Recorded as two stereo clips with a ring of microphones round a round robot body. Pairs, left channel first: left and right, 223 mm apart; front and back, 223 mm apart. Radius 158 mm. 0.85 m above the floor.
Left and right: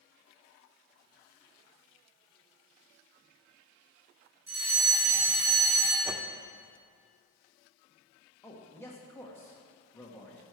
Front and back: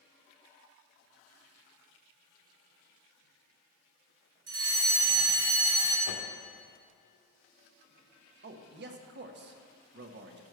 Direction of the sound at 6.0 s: 10° right.